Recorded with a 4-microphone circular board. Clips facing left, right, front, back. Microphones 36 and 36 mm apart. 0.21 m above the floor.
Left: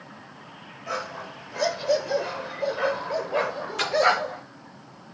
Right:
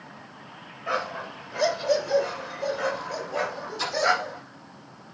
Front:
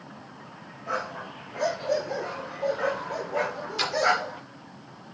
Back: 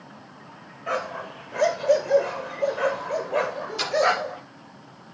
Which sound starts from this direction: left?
A splash, at 3.8 s.